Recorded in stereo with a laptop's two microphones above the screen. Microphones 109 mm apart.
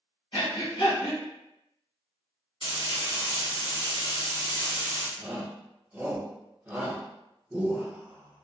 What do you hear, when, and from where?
0.3 s breathing: 60° left (ahead or behind), 1.5 m
2.6 s frying: 55° left (ahead or behind), 1.4 m
5.2 s a shout: 15° right (ahead or behind), 1.0 m